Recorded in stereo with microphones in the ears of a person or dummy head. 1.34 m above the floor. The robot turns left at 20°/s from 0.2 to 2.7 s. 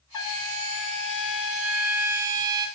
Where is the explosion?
No explosion in this recording.